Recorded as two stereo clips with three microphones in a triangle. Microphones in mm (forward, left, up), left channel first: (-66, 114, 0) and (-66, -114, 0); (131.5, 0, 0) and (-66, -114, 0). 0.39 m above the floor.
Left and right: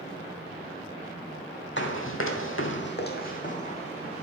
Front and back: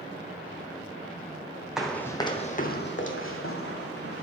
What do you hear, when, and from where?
1.8 s running footsteps: 125° left, 1.0 m; by 4.2 s 25° left, 1.7 m